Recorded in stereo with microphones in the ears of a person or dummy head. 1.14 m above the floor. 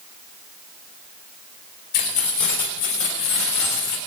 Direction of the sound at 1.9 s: 75° left (ahead or behind).